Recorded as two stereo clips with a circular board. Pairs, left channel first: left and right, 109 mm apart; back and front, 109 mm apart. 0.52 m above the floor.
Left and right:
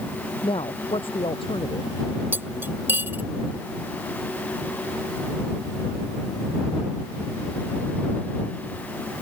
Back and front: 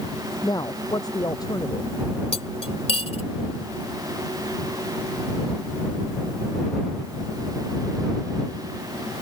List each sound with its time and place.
0.4 s a woman speaking: 125° left
2.3 s cutlery clinking: 160° right